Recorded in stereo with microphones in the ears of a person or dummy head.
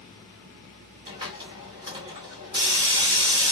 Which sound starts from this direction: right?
A hiss, at 1.1 s.